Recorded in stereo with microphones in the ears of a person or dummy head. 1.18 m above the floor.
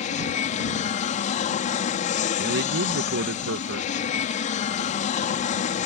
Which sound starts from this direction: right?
A man speaking, at 2.4 s.